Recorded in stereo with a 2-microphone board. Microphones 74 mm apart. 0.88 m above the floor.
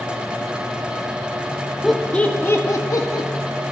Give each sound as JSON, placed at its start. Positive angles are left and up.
{"t": 1.8, "sound": "laughter", "side_deg": 0, "distance_m": 1.8}